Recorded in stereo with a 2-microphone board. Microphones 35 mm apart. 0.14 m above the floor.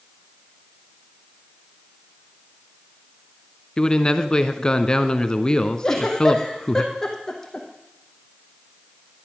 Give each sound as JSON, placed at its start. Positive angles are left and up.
{"t": 3.8, "sound": "a man speaking", "side_deg": 25, "distance_m": 1.1}
{"t": 5.8, "sound": "a giggle", "side_deg": 15, "distance_m": 3.0}